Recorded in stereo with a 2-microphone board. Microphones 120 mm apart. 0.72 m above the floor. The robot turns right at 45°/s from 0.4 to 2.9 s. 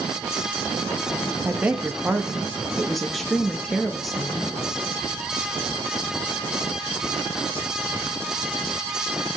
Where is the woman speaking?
15° right (ahead or behind), 1.0 m; by 4.6 s centre (ahead or behind), 1.0 m.